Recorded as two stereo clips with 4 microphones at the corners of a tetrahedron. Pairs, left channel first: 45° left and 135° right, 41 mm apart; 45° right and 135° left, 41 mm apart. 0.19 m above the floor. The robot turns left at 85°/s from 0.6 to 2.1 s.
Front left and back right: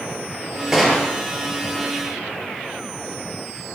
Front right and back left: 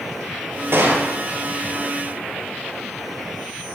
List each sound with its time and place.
0.7 s a gunshot: 150° left, 4.5 m; by 1.2 s 105° left, 4.5 m